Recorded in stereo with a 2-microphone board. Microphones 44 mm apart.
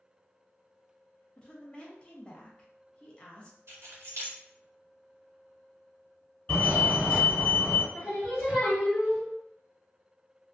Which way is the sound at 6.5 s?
40° left (ahead or behind).